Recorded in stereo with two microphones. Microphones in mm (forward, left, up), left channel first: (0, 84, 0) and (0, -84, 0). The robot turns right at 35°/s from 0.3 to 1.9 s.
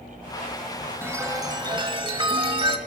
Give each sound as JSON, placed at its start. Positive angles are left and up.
{"t": 1.0, "sound": "a chime", "azimuth_deg": -160, "distance_m": 1.2}